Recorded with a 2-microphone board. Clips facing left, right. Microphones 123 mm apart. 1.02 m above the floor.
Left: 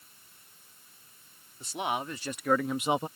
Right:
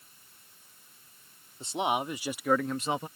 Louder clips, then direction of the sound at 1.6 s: Right 3 dB; 25° right (ahead or behind).